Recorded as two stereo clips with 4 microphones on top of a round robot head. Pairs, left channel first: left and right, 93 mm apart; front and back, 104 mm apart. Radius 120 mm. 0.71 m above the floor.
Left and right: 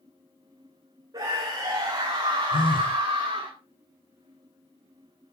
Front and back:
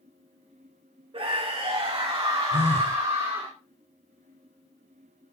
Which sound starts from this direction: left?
A phone buzzing, at 2.5 s.